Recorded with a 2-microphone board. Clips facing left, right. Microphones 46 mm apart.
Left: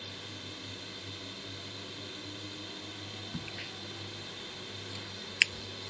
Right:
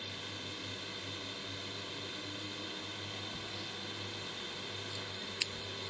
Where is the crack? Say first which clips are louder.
Left 2 dB; 60° left (ahead or behind).